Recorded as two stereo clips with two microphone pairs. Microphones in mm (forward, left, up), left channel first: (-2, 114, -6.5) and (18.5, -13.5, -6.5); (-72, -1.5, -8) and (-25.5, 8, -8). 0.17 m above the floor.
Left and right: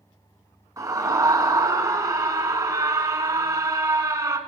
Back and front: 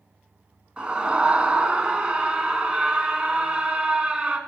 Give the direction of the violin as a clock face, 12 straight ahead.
No violin in this recording.